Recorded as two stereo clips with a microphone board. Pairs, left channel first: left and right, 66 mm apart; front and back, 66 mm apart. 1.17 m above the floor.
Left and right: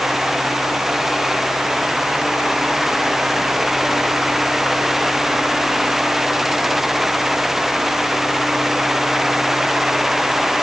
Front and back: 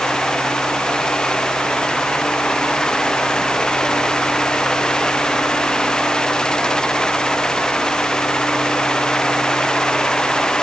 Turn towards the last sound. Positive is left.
No sound to turn to.